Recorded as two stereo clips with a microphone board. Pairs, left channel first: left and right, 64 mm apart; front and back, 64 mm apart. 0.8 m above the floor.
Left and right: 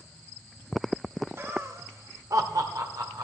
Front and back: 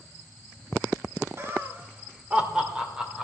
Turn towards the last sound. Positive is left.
turn(degrees=-100)